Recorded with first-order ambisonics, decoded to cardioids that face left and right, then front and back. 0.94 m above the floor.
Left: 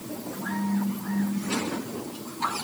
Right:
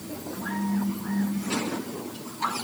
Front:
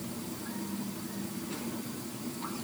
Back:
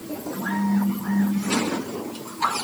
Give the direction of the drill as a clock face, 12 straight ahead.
I don't hear a drill.